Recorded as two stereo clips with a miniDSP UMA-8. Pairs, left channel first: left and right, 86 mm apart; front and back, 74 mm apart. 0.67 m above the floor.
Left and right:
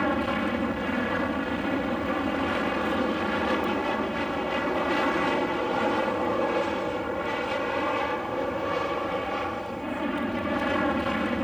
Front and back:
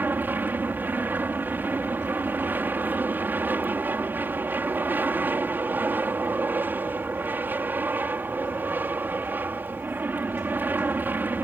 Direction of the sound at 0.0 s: Straight behind.